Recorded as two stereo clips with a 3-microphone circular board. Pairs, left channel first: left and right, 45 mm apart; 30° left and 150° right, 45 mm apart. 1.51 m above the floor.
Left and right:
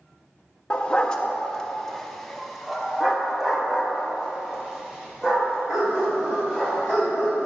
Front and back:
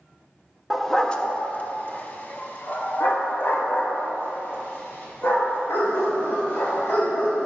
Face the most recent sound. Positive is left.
turn(degrees=-5)